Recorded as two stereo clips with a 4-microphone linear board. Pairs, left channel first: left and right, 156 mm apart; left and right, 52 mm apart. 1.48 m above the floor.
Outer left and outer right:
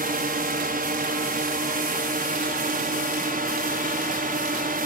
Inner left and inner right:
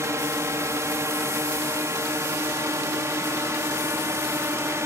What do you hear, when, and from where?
0.0 s a drone: 65° right (ahead or behind)